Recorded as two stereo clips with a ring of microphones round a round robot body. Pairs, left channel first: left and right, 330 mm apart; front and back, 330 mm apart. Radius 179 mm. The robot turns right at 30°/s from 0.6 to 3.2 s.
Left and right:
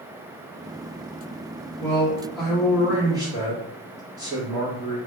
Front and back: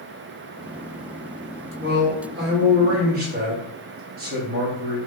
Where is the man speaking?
160° left, 0.8 m; by 5.0 s 160° right, 0.8 m.